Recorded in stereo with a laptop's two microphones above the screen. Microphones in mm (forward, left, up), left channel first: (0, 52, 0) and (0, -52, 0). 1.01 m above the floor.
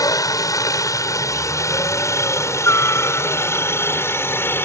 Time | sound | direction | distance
0.0 | a helicopter | 35° left (ahead or behind) | ?